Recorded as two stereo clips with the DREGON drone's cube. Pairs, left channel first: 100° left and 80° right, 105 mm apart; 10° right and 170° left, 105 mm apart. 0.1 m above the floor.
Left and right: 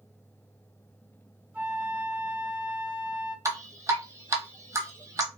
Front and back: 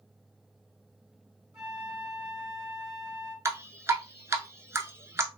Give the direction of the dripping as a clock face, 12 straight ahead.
4 o'clock.